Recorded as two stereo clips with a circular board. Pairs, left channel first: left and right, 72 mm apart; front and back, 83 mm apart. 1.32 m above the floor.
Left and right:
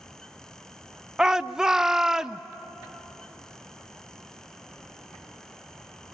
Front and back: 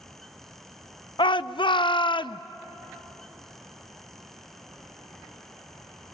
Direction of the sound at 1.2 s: 10° right.